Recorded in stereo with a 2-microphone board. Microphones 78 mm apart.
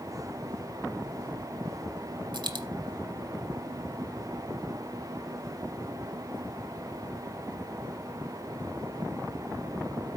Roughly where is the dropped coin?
Right.